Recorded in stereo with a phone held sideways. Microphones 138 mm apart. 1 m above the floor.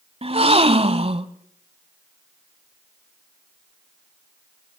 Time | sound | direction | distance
0.2 | a gasp | 45° right (ahead or behind) | 1.1 m